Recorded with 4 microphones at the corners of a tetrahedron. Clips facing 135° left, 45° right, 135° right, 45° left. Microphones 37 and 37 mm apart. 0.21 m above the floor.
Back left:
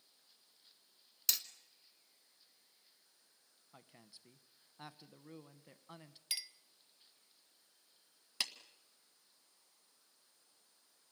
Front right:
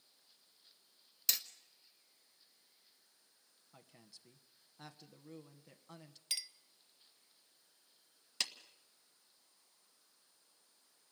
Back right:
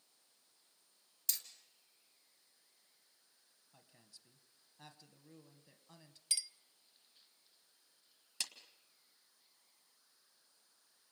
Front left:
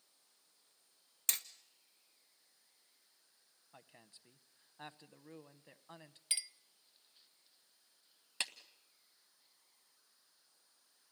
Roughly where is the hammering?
Ahead left.